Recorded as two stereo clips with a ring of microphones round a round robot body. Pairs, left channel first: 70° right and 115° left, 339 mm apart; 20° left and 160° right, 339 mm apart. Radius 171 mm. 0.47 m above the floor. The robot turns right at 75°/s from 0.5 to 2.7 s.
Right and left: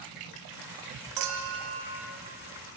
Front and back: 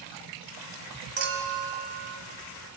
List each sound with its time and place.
1.2 s a clink: 140° left, 1.9 m; by 2.2 s 140° right, 1.9 m